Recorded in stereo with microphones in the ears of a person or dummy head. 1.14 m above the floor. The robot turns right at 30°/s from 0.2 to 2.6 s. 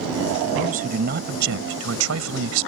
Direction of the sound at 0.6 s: 140° right.